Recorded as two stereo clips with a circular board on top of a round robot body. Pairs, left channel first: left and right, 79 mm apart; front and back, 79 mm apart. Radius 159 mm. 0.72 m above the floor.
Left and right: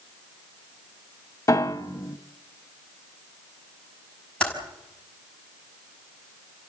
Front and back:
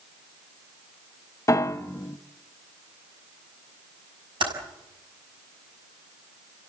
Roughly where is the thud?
I don't hear a thud.